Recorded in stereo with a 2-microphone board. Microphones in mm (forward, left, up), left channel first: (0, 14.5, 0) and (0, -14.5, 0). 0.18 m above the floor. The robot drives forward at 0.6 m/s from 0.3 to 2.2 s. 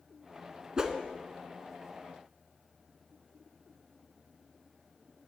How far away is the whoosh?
About 0.6 m.